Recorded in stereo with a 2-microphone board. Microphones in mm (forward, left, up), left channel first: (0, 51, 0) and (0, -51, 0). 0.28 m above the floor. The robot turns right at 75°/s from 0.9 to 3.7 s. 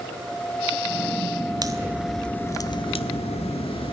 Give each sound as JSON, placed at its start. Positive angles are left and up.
{"t": 1.6, "sound": "a crack", "side_deg": -40, "distance_m": 0.6}